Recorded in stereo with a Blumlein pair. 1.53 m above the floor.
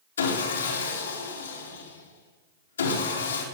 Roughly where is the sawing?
Left.